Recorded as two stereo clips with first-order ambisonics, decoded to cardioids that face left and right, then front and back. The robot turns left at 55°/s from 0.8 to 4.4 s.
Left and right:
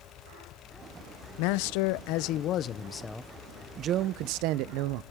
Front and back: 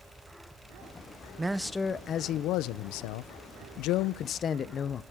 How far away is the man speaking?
About 0.7 m.